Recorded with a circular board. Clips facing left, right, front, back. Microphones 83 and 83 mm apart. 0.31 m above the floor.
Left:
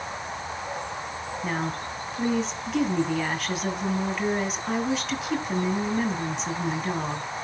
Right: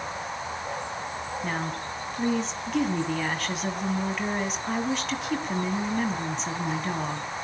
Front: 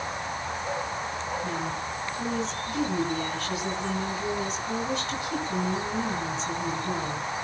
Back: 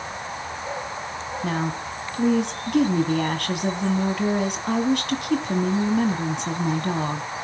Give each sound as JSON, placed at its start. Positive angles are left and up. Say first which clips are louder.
{"t": 1.4, "sound": "a woman speaking", "louder": "left 4 dB, back 4 dB", "azimuth_deg": 180, "distance_m": 2.0}